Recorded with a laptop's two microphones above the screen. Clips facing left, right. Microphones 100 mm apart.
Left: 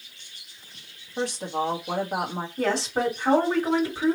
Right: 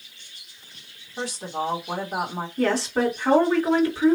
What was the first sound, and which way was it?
A woman speaking, 50° left (ahead or behind).